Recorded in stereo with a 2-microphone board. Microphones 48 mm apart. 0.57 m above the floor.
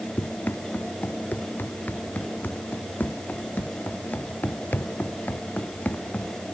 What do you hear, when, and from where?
0.2 s running footsteps: 40° left (ahead or behind); by 6.3 s 35° left (ahead or behind)